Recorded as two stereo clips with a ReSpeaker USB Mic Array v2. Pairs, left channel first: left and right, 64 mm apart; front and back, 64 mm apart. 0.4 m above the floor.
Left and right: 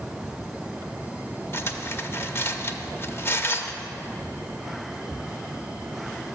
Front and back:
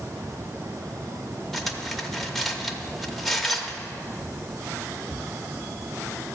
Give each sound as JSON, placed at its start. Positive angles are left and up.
{"t": 1.5, "sound": "cutlery clinking", "azimuth_deg": 85, "distance_m": 0.7}